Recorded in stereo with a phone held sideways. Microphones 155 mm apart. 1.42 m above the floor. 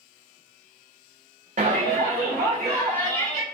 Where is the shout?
55° right (ahead or behind), 0.5 m; by 3.4 s 90° right, 1.4 m.